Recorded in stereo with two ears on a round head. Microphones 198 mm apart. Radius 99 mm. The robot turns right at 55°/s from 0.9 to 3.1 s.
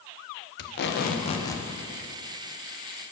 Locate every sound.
0.6 s tape being pulled: 130° left, 0.9 m; by 1.6 s 175° left, 0.9 m